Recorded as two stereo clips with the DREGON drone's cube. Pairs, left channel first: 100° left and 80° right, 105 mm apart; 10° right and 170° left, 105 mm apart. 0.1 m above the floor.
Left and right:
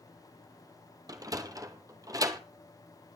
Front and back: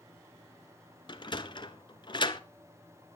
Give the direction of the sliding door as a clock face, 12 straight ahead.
1 o'clock.